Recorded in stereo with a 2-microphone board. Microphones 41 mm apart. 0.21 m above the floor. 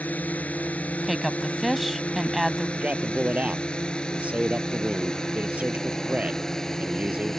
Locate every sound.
0.0 s a drone: 40° left (ahead or behind); by 7.4 s 10° left (ahead or behind)
1.0 s a woman speaking: 5° right (ahead or behind)
2.8 s a man speaking: 35° right (ahead or behind)